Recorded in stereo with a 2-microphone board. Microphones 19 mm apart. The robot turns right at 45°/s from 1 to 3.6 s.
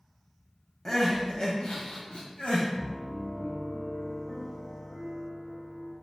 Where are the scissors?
I don't hear scissors.